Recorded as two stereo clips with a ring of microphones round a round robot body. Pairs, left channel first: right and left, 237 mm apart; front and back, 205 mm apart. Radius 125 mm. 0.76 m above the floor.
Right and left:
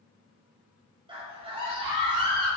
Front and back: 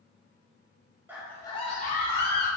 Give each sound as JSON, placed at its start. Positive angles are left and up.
{"t": 1.1, "sound": "a scream", "azimuth_deg": 115, "distance_m": 0.6}